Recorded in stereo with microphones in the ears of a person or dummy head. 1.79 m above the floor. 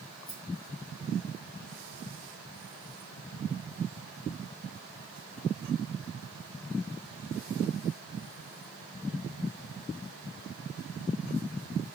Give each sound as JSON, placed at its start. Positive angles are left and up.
{"t": 0.3, "sound": "a rattle", "side_deg": 50, "distance_m": 2.5}